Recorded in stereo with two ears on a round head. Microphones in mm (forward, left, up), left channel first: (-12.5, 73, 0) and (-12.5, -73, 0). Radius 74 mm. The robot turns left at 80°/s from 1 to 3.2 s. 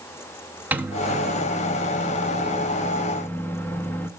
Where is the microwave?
160° right, 0.9 m; by 4.1 s 20° left, 0.9 m.